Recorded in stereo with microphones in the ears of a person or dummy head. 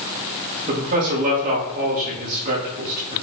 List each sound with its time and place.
0.7 s a man speaking: 45° right (ahead or behind), 3 m